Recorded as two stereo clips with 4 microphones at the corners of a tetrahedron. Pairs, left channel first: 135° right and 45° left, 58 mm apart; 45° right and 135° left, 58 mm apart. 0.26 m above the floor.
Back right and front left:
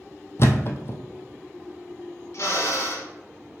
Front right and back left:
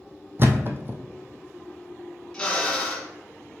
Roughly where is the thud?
Behind.